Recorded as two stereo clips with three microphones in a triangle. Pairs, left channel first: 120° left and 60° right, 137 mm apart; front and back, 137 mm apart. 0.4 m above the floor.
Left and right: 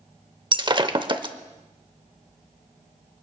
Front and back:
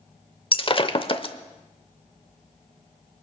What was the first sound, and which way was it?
Breaking glass, 25° right.